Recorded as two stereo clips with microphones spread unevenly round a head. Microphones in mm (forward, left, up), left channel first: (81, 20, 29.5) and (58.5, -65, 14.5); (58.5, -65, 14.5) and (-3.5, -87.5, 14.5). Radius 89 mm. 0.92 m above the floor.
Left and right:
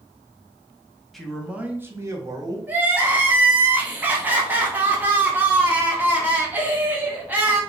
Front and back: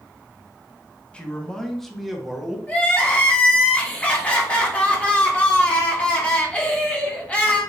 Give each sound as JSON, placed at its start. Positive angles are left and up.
{"t": 1.1, "sound": "a man speaking", "azimuth_deg": -30, "distance_m": 0.8}
{"t": 2.7, "sound": "crying", "azimuth_deg": -45, "distance_m": 1.1}